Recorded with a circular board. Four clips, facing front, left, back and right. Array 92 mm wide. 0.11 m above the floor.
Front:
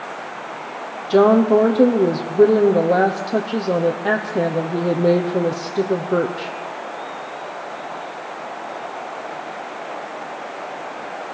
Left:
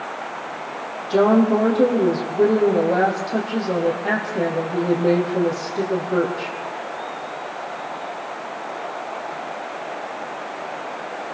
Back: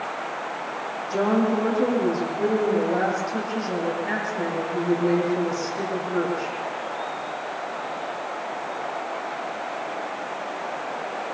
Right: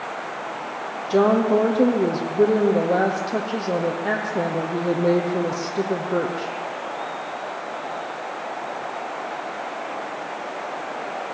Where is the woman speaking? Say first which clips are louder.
Left 2 dB, front 9 dB; 5° right, 4 m.